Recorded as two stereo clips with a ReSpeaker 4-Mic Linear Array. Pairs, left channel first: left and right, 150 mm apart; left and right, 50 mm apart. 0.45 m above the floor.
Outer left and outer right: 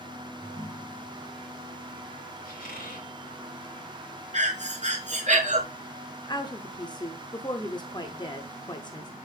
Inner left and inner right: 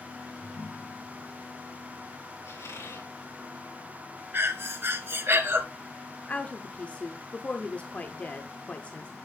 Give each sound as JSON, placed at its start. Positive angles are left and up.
{"t": 0.4, "sound": "a ringtone", "side_deg": 45, "distance_m": 3.0}
{"t": 2.5, "sound": "a squeak", "side_deg": 80, "distance_m": 2.5}
{"t": 4.3, "sound": "breathing", "side_deg": -50, "distance_m": 1.2}
{"t": 6.3, "sound": "a woman speaking", "side_deg": 30, "distance_m": 0.8}